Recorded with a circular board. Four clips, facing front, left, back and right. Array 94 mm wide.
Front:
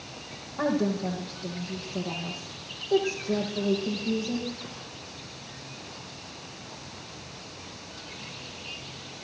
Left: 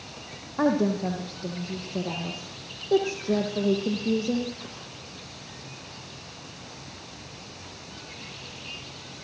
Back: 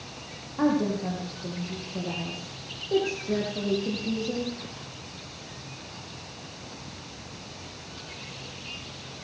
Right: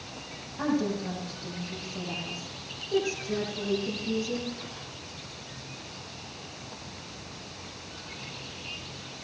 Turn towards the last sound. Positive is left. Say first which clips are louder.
# left 5 dB, back 2 dB
turn(degrees=90)